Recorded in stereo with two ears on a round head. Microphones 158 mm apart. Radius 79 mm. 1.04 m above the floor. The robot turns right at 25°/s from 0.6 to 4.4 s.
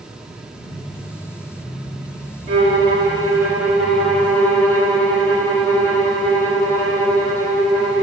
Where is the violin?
40° right, 4 m; by 8.0 s 10° left, 4 m.